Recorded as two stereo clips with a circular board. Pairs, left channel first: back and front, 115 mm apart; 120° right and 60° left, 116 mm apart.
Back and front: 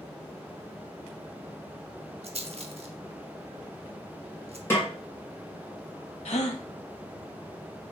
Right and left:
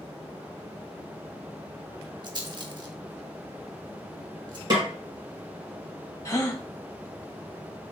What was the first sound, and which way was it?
A rattle, 15° left.